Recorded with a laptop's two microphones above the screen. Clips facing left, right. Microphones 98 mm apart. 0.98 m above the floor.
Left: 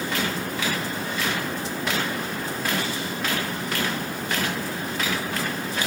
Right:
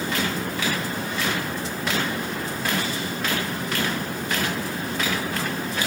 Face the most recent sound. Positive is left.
No sound to turn to.